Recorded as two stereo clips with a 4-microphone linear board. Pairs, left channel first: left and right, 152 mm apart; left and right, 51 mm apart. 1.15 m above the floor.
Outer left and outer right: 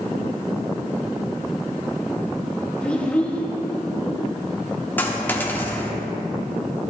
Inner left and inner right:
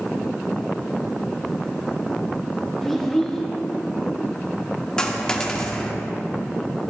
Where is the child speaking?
10° left (ahead or behind), 1.4 m.